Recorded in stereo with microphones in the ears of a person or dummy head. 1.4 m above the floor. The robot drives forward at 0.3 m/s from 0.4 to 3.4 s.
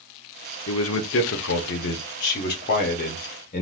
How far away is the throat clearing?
I don't hear throat clearing.